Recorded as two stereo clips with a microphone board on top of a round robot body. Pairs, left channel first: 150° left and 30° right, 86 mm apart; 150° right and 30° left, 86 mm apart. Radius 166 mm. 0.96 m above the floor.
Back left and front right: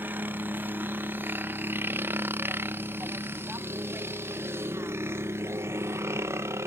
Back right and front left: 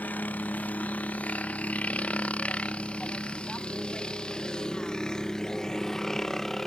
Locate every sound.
0.0 s a helicopter: 90° right; by 6.7 s 65° right